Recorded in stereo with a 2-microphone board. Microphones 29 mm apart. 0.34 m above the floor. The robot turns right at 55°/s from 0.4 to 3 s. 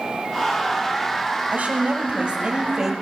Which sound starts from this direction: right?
A woman speaking, at 1.5 s.